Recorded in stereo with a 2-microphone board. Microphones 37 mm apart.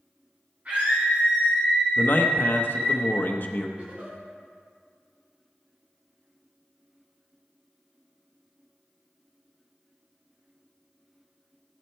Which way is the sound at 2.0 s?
55° left (ahead or behind).